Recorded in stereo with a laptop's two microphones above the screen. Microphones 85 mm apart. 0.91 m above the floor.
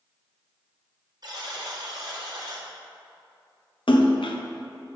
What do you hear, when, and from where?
1.2 s a buzzer: 55° right (ahead or behind), 1.5 m
3.9 s a splash: 70° left (ahead or behind), 0.6 m